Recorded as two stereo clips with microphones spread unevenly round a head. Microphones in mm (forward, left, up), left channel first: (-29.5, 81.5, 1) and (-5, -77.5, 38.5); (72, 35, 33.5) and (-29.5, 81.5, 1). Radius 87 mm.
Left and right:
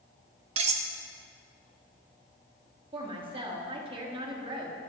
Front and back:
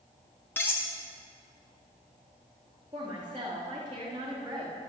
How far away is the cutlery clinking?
About 1.1 m.